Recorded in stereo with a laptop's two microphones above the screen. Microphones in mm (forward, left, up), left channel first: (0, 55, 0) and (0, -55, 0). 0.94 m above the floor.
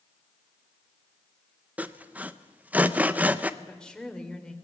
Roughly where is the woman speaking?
Centre.